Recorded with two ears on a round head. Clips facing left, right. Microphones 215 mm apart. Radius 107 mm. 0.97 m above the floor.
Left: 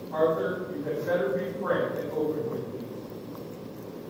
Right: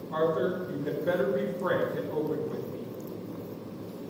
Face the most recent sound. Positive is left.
turn(degrees=-50)  # may be behind; listen again after turning